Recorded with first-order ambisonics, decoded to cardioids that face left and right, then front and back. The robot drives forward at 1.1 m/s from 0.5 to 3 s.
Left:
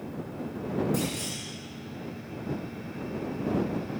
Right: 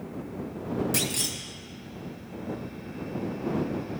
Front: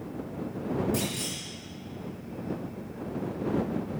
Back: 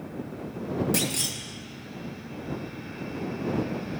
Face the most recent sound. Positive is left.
turn(degrees=-160)